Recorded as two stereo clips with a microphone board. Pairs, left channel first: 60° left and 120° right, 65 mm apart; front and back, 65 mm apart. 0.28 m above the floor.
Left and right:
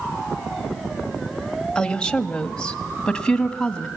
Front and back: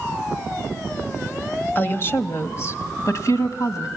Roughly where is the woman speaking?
Ahead.